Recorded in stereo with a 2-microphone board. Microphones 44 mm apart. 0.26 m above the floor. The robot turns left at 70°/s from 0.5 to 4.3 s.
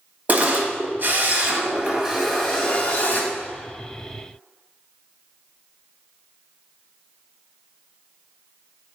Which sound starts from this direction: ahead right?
A camera shutter, at 0.3 s.